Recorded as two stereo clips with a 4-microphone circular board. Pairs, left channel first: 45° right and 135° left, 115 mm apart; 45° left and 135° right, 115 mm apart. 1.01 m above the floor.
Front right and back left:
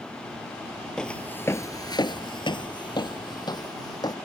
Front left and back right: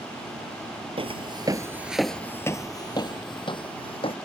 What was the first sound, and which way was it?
Footsteps, 125° right.